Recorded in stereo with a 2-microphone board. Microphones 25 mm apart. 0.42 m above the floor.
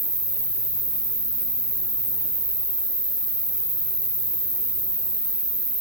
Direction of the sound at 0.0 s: 20° right (ahead or behind).